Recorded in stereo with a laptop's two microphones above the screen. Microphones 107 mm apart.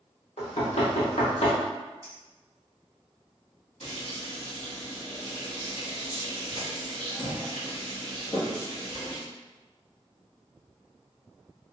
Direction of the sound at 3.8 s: 75° left (ahead or behind).